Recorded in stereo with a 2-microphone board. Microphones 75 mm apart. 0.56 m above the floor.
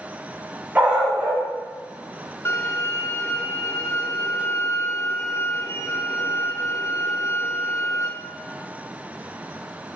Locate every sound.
0.8 s a dog barking: 20° right (ahead or behind), 1.9 m
2.5 s a violin: 40° left (ahead or behind), 1.1 m